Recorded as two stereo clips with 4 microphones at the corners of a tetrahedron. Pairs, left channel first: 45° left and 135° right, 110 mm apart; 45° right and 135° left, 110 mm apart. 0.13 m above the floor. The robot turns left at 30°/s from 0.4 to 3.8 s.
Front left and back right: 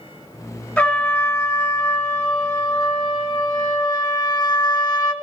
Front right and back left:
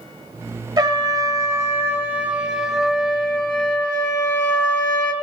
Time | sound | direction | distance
0.8 | a trumpet | 115° left | 1.1 m